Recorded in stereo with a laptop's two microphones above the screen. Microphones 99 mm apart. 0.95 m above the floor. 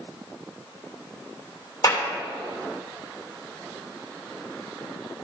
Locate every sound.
1.8 s a clap: 35° left (ahead or behind), 3 m